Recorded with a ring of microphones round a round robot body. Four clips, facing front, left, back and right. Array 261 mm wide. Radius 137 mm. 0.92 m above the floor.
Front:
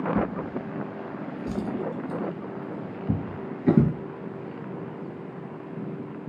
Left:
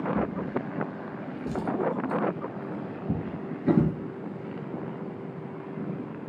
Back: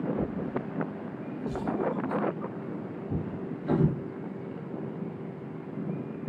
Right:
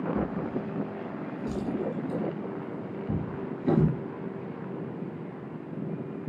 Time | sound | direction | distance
0.1 | a drawer | 15° left | 4 m